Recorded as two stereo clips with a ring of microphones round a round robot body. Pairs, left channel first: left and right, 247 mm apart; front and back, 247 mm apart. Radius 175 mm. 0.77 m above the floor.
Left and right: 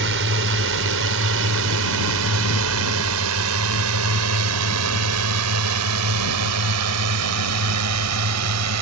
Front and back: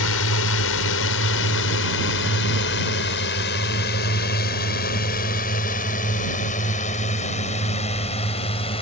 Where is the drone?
40° right; by 8.8 s 75° right.